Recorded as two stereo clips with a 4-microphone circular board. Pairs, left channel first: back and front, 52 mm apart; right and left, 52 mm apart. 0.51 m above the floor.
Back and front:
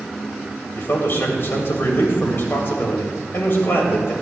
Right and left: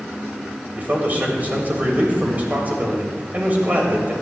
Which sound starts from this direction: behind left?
A man speaking, at 0.8 s.